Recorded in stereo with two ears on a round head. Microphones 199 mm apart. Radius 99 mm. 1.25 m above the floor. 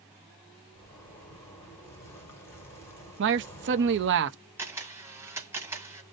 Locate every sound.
0.8 s a zipper: 10° left (ahead or behind), 1.6 m
3.2 s a man speaking: 55° right (ahead or behind), 0.6 m
4.6 s a camera shutter: 10° right (ahead or behind), 1.5 m